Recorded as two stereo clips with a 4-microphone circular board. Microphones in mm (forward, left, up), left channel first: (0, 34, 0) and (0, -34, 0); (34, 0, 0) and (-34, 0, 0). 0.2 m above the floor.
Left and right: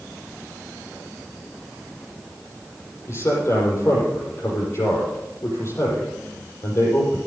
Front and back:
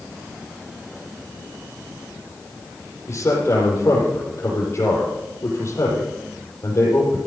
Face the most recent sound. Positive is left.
turn(degrees=45)